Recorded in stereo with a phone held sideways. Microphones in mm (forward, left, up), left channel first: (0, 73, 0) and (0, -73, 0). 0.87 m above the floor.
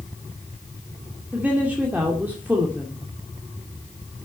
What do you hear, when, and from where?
1.3 s a woman speaking: 10° right (ahead or behind), 2 m